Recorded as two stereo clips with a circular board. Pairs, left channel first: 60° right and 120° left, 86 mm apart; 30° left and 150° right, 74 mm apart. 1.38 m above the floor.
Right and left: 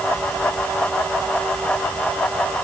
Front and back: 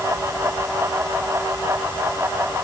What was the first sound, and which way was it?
Only background noise.